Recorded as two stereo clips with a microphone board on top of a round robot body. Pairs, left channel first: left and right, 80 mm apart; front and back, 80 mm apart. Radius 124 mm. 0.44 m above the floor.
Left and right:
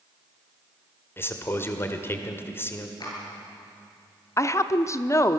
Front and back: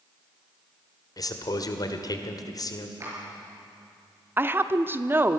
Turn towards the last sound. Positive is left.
turn(degrees=125)